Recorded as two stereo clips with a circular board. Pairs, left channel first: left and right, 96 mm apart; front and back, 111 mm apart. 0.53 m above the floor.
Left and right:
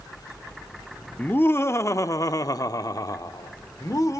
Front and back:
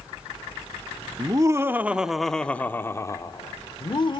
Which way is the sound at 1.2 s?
150° left.